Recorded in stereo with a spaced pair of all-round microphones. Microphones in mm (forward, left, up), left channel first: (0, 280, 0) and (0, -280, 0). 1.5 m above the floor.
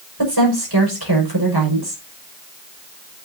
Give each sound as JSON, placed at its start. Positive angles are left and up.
{"t": 0.2, "sound": "a woman speaking", "side_deg": -40, "distance_m": 6.0}